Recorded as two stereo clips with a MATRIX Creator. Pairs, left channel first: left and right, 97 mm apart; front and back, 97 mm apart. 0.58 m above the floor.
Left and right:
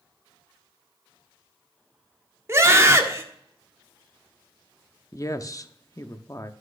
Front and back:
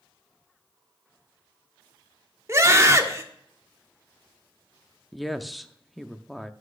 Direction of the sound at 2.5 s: 135° right.